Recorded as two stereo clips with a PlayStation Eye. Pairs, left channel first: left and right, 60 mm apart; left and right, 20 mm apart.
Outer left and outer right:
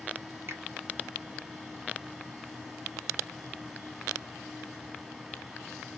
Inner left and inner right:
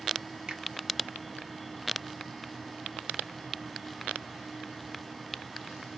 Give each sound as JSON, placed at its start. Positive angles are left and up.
{"t": 0.5, "sound": "a finger snap", "side_deg": -50, "distance_m": 1.4}